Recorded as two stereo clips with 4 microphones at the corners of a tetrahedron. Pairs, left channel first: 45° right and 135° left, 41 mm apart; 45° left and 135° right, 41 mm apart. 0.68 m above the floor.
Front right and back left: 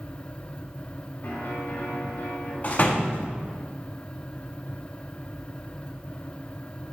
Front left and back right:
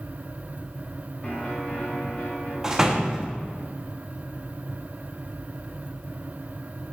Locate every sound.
1.2 s a piano: 20° right, 2.5 m
2.6 s a door slam: 70° right, 0.8 m